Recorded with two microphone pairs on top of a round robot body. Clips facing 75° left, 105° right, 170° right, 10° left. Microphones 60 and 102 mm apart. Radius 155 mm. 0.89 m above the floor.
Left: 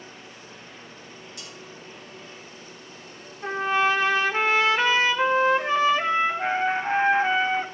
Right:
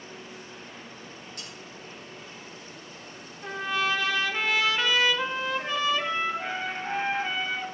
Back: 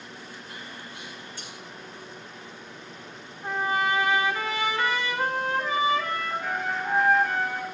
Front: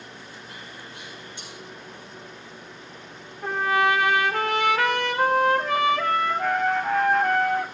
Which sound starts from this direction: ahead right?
Cutlery clinking, at 1.4 s.